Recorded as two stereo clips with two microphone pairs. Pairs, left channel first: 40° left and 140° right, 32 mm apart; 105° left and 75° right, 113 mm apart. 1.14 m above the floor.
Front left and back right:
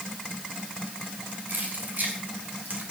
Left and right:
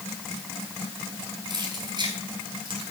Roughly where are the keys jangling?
Behind right.